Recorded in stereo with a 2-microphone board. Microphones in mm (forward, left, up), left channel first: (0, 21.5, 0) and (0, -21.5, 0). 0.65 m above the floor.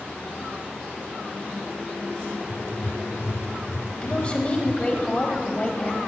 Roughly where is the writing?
Left.